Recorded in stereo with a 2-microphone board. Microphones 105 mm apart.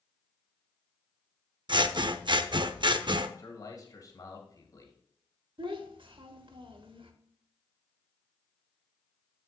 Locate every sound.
1.7 s scissors: 50° right (ahead or behind), 0.5 m
3.4 s a man speaking: 40° left (ahead or behind), 2 m
5.6 s a child speaking: 60° right (ahead or behind), 1.1 m